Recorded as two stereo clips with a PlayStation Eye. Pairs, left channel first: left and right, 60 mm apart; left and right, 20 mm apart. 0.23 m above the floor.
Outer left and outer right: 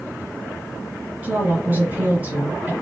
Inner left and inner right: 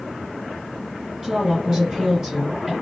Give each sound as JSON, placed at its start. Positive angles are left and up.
{"t": 1.2, "sound": "a woman speaking", "side_deg": -30, "distance_m": 2.5}